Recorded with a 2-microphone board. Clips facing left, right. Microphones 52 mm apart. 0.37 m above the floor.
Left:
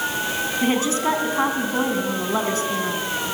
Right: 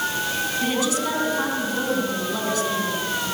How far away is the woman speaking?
About 3.5 m.